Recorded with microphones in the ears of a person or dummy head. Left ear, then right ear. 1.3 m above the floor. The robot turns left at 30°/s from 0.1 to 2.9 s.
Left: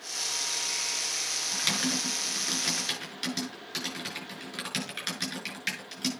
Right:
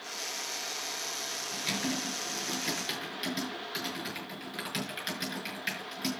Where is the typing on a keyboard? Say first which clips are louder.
Left 5 dB; 60° left (ahead or behind), 5.5 m; by 6.1 s 20° left (ahead or behind), 5.5 m.